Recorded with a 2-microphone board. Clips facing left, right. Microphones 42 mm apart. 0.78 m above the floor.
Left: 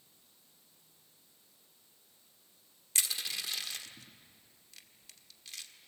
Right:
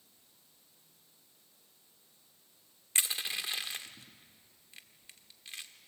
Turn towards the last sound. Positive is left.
turn(degrees=-25)  # may be behind; listen again after turning